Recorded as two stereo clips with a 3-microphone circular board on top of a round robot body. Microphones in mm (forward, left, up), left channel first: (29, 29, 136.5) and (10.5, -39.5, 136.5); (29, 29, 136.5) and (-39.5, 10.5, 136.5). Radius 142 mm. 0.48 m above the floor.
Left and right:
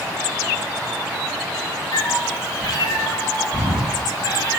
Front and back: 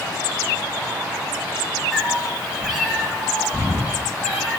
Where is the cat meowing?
110° left, 4.5 m.